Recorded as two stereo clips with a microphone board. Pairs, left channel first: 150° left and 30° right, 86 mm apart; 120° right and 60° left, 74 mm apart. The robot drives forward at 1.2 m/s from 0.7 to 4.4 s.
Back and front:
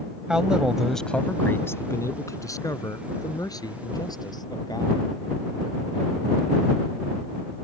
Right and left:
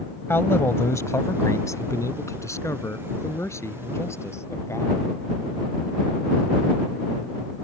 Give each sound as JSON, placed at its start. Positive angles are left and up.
{"t": 0.3, "sound": "a man speaking", "azimuth_deg": -105}